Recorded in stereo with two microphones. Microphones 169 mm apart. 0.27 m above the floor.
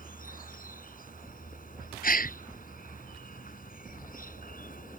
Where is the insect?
55° left (ahead or behind).